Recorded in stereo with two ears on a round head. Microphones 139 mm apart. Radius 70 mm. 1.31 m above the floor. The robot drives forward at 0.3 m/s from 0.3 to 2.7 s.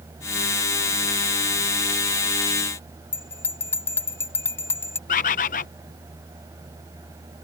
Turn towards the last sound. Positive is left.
turn(degrees=55)  # may be behind; listen again after turning